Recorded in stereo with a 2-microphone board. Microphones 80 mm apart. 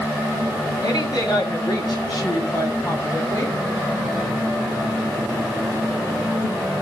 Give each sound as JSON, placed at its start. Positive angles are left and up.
{"t": 0.8, "sound": "a woman speaking", "side_deg": 60, "distance_m": 8.0}